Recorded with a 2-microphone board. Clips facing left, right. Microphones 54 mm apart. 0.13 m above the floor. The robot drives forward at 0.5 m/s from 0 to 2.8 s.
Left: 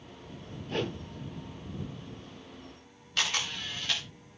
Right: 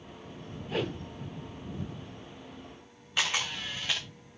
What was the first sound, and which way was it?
A whoosh, 5° right (ahead or behind).